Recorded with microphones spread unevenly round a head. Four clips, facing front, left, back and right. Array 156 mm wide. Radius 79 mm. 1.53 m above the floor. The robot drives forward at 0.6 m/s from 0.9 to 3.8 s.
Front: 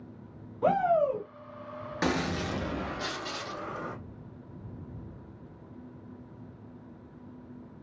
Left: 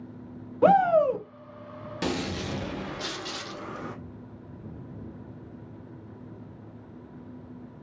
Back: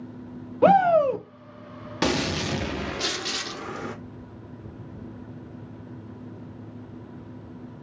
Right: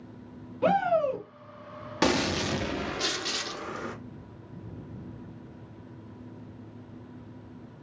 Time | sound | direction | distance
0.6 | a shout | 165° left | 1.1 m
2.0 | a gunshot | 110° right | 1.0 m